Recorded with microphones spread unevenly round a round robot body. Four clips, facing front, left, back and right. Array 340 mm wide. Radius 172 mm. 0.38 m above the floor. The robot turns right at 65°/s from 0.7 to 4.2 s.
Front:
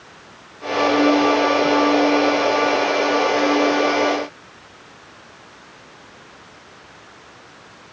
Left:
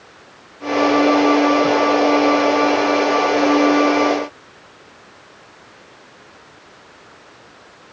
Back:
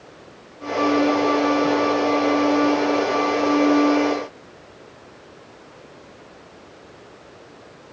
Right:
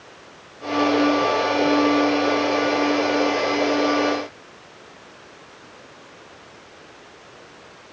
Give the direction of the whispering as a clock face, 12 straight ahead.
No whispering in this recording.